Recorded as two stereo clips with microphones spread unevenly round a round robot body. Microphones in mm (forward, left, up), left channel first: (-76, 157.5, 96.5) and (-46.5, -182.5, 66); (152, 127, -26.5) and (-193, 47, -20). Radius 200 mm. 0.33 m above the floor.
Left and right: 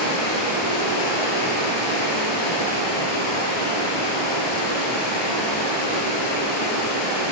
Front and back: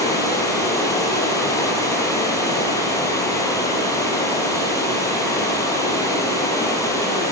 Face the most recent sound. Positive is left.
turn(degrees=95)